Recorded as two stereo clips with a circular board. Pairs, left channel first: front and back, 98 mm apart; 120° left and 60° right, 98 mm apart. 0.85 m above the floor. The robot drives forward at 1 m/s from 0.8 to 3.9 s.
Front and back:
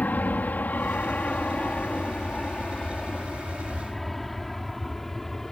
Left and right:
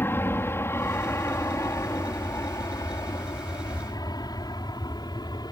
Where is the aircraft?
65° left; by 5.5 s 85° left.